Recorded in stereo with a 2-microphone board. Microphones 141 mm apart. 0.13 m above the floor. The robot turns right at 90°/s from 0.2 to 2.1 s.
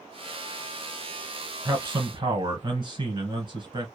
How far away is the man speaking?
About 1.6 m.